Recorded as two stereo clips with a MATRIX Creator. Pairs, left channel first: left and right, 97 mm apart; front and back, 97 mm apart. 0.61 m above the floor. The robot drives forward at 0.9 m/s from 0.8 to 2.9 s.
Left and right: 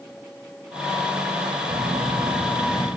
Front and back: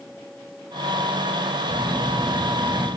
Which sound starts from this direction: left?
A phone buzzing, at 1.7 s.